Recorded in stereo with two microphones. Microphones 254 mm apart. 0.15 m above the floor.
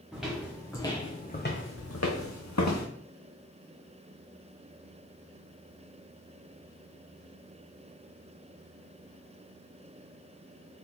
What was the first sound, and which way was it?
Footsteps, 5° right (ahead or behind).